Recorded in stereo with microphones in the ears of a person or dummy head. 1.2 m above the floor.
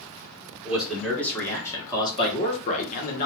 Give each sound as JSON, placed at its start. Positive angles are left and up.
{"t": 0.7, "sound": "a man speaking", "side_deg": 0, "distance_m": 1.5}